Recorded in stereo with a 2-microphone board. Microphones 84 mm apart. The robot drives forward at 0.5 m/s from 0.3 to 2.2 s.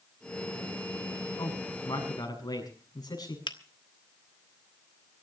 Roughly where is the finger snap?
Left.